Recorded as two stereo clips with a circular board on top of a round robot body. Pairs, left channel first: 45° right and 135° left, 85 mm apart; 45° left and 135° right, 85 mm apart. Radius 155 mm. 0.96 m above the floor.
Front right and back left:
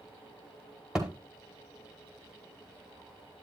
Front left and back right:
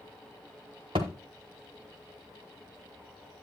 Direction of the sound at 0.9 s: 145° right.